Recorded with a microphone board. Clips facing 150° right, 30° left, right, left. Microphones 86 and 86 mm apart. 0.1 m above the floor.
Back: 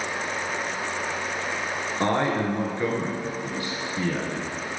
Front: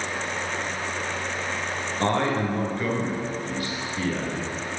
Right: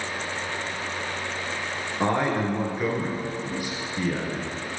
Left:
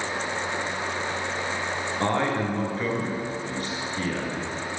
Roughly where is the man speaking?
Behind right.